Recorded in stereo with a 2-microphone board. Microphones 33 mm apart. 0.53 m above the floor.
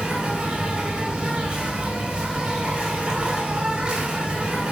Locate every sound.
0.0 s an insect: 30° right (ahead or behind), 2.5 m